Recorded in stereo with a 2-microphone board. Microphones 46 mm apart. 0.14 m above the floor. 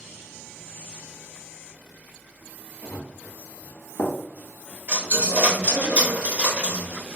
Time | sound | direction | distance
2.8 | running footsteps | 85° left | 1.1 m
4.9 | a dropped coin | 25° right (ahead or behind) | 1.0 m